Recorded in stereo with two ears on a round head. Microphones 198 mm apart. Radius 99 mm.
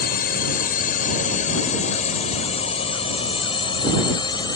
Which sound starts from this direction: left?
A drone, at 0.0 s.